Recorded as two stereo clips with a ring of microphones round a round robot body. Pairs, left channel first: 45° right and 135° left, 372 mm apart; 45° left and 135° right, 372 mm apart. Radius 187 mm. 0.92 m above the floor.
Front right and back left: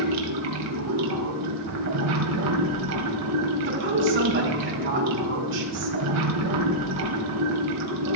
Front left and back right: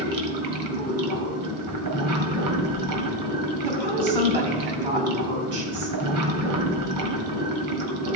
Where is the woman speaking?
165° right, 5.5 m.